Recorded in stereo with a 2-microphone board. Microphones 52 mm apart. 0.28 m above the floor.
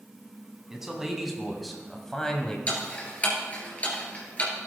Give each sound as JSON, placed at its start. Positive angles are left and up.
{"t": 0.7, "sound": "a man speaking", "side_deg": -10, "distance_m": 2.0}
{"t": 2.7, "sound": "ticking", "side_deg": 25, "distance_m": 2.5}